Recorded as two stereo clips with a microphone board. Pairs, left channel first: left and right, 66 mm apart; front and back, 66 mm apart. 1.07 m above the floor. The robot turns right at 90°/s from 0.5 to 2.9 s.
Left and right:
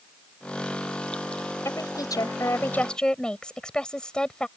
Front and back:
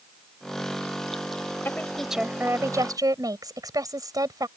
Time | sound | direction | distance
1.6 | a woman speaking | 55° left | ?